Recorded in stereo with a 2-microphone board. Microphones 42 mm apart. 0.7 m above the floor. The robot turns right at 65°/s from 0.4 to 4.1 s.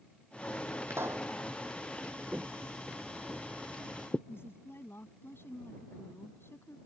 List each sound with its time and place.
0.9 s a pop: 75° right (ahead or behind); by 1.3 s 80° right
2.3 s footsteps: 20° right (ahead or behind); by 4.2 s 45° left (ahead or behind)
4.3 s a woman speaking: 75° left (ahead or behind)